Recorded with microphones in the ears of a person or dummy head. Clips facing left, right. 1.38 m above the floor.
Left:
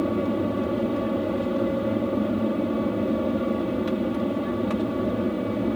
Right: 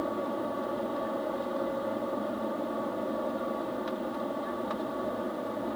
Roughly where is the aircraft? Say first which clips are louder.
Left 8 dB; left.